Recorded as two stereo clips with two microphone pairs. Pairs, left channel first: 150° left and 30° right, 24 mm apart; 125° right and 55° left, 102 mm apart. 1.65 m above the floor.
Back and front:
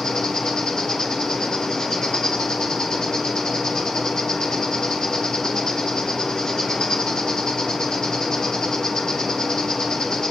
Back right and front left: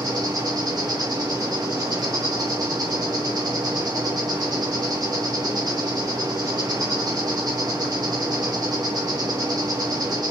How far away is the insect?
About 4 m.